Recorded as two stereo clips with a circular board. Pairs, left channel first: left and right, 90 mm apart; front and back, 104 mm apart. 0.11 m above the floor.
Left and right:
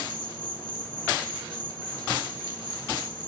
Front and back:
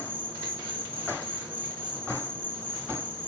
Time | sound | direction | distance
0.0 | an insect | 130° left | 2.5 m